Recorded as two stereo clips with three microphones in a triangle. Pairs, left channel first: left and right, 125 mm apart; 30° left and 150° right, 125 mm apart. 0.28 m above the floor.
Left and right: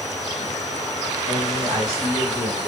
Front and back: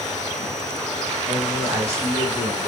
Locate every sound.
1.3 s a man speaking: 95° right, 2 m